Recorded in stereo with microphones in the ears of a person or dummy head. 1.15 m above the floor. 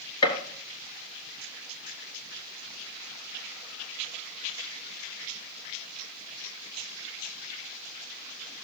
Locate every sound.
0.2 s a gunshot: 20° left (ahead or behind), 1.8 m